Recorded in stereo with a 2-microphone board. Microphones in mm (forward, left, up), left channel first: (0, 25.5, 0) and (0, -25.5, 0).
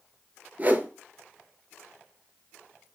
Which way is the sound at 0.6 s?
35° right (ahead or behind).